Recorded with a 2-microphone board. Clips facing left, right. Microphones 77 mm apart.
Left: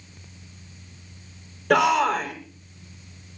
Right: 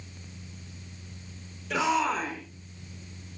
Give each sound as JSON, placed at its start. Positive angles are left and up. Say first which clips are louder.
{"t": 1.7, "sound": "a shout", "louder": "left 7 dB", "side_deg": 65, "distance_m": 7.0}